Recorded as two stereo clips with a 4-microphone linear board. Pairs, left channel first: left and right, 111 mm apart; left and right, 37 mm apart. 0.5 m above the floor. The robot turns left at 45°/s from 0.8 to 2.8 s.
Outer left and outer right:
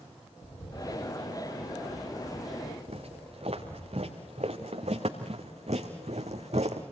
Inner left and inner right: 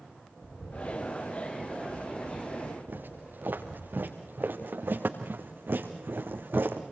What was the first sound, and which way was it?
A bird, 110° left.